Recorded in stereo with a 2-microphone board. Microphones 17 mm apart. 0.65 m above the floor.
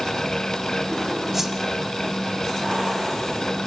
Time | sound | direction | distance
1.3 | a whoosh | 10° right (ahead or behind) | 1.5 m